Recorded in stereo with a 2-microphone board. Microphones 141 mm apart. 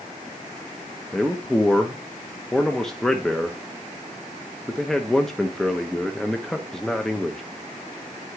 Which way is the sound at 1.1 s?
5° left (ahead or behind).